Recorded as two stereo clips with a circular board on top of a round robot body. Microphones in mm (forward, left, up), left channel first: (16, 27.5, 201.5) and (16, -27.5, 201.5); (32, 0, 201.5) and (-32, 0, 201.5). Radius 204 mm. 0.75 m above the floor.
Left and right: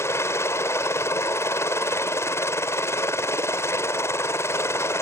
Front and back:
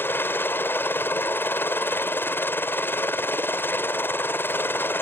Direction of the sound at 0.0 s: 55° left.